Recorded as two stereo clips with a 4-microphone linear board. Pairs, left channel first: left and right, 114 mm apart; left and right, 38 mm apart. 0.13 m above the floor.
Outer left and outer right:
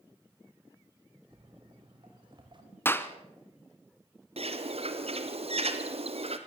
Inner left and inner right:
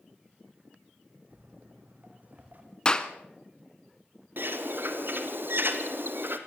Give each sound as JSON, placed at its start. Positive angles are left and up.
{"t": 1.3, "sound": "footsteps", "side_deg": -45, "distance_m": 5.0}
{"t": 2.9, "sound": "a clap", "side_deg": 20, "distance_m": 1.0}
{"t": 4.4, "sound": "a bird", "side_deg": -60, "distance_m": 1.5}